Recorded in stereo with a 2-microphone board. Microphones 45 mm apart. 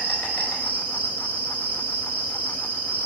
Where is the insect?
40° left (ahead or behind), 1.0 m.